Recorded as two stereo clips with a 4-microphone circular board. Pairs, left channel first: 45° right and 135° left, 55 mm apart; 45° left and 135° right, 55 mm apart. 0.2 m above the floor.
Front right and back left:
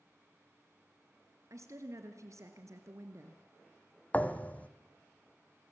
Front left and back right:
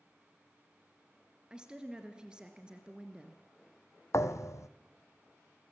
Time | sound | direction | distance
1.5 | a woman speaking | 150° left | 2.5 m
4.1 | a thud | 20° left | 1.2 m